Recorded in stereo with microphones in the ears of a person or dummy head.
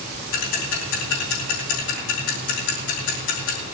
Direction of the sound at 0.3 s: 70° left (ahead or behind).